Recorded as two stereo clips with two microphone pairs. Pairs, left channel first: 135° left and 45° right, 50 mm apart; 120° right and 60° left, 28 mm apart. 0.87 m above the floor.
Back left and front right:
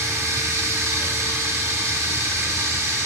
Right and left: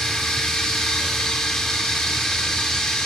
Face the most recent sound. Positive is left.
turn(degrees=-50)